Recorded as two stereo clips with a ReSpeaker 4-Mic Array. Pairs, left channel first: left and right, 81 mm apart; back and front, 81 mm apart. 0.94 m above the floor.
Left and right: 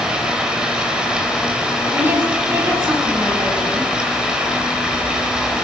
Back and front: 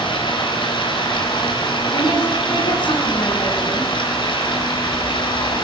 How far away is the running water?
About 4.5 m.